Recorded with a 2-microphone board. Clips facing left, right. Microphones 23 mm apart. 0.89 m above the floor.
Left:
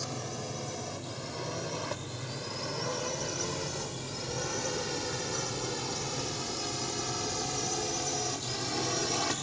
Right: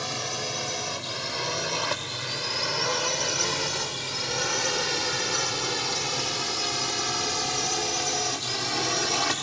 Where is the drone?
55° right (ahead or behind); by 9.4 s 35° right (ahead or behind).